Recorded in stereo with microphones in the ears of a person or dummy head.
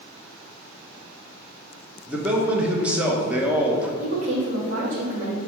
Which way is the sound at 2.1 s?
10° right (ahead or behind).